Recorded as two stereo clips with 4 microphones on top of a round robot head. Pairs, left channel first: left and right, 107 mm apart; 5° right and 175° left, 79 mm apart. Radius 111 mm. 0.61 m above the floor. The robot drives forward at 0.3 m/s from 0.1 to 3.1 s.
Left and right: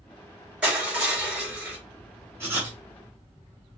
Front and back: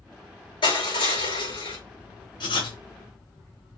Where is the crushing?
10° right, 3.5 m; by 1.8 s 15° right, 3 m.